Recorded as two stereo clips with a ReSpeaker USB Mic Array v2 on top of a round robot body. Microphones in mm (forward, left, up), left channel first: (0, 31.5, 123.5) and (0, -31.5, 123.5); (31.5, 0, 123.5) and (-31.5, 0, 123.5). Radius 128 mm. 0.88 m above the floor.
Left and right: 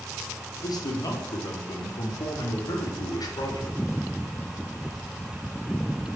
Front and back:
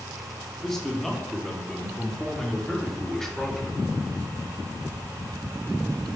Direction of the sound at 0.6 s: 85° left.